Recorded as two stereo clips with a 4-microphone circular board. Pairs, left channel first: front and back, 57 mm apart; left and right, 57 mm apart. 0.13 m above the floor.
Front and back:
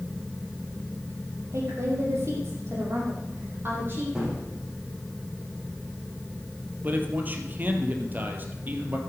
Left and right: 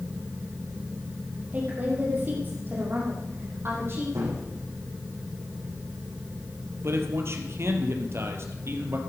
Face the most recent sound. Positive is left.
turn(degrees=-125)